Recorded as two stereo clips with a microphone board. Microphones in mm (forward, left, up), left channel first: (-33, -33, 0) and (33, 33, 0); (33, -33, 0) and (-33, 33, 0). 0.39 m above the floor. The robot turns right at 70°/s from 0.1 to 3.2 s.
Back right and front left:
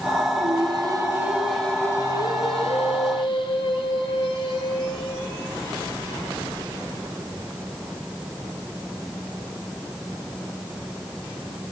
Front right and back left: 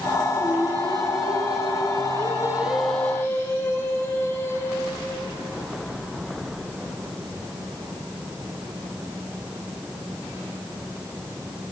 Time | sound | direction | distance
0.3 | singing | 50° left | 6.5 m